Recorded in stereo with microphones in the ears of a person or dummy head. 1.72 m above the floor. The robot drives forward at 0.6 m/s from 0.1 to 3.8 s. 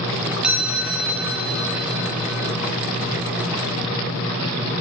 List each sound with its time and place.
0.4 s a chime: 5° right (ahead or behind), 0.5 m; by 2.5 s centre (ahead or behind), 1.7 m